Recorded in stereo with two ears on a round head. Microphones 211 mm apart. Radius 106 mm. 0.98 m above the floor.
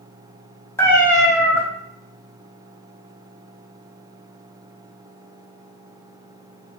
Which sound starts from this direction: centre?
A cat meowing, at 0.8 s.